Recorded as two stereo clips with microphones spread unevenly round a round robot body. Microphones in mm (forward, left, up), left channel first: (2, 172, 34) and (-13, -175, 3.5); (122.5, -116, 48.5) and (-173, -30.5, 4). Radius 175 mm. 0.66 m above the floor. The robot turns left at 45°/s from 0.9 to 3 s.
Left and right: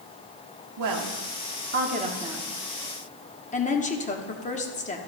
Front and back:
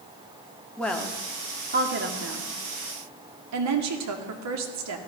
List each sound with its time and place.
0.8 s a woman speaking: 110° right, 1.4 m; by 5.0 s 160° left, 1.4 m